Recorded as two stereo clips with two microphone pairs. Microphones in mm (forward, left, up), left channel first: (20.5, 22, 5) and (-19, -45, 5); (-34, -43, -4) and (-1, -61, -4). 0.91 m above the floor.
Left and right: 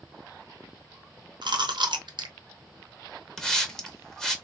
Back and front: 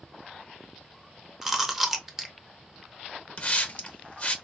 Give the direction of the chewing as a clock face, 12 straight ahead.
4 o'clock.